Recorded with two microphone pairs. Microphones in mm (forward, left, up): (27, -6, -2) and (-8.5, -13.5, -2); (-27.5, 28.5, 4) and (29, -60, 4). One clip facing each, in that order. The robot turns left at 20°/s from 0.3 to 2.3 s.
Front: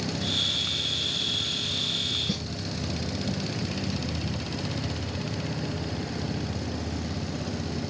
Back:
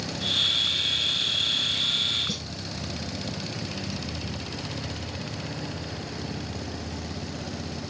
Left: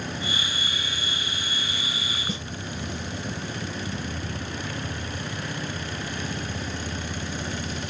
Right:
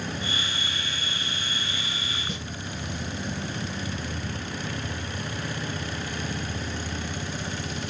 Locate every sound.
2.3 s a snare drum: 80° left, 2 m